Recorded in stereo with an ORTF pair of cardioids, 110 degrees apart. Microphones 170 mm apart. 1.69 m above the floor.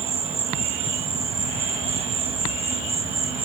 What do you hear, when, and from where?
0.0 s an insect: 35° right